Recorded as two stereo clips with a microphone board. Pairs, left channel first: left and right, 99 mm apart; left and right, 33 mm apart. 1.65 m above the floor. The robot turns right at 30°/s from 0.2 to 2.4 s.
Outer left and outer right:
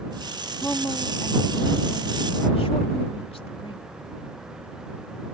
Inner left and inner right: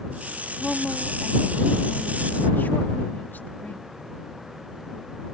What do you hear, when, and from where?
0.6 s a woman speaking: 15° left; by 3.9 s 70° left